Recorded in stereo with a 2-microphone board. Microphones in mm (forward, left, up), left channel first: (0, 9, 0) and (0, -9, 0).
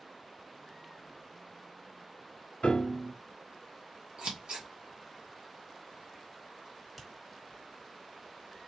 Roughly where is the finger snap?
Centre.